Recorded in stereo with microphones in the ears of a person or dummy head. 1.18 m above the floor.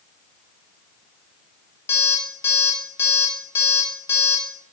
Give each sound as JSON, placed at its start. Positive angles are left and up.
{"t": 1.9, "sound": "an alarm clock", "side_deg": 15, "distance_m": 1.3}